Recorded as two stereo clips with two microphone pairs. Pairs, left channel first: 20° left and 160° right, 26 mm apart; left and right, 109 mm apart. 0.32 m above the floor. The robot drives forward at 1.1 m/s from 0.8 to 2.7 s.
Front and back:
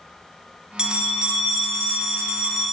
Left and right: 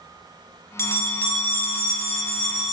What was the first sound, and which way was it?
A bell, 150° left.